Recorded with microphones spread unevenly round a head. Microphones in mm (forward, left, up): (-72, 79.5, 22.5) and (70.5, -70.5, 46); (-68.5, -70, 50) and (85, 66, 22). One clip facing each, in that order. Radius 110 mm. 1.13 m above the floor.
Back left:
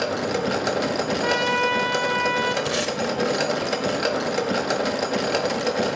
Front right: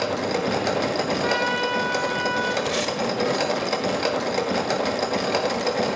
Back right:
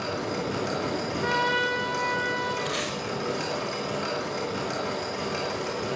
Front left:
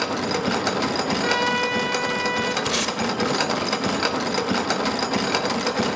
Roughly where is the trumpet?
Left.